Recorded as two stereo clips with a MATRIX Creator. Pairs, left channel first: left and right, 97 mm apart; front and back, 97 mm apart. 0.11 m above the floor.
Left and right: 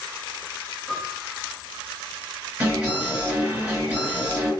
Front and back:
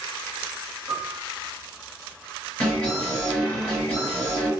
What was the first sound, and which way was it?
A piano, 165° right.